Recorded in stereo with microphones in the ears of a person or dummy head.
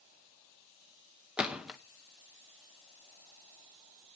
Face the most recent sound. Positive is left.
turn(degrees=0)  # may be behind; listen again after turning